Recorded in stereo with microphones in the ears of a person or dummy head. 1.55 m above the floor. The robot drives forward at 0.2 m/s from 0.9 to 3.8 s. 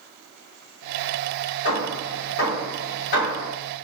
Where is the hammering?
55° left (ahead or behind), 1.7 m; by 3.5 s 45° left (ahead or behind), 1.9 m.